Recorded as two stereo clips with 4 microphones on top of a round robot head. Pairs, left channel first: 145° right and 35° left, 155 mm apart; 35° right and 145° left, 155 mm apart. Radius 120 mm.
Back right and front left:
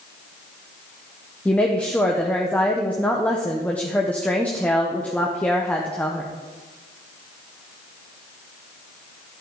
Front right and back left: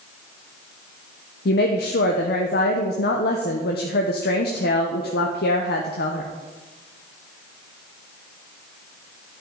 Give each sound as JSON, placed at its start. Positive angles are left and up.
{"t": 1.4, "sound": "a woman speaking", "azimuth_deg": -60, "distance_m": 0.7}